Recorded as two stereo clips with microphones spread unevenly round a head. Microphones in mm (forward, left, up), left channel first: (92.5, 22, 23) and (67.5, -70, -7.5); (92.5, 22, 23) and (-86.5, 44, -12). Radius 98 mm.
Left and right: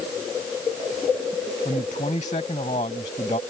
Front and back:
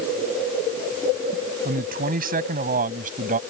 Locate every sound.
1.6 s a man speaking: 130° left; by 3.4 s 125° left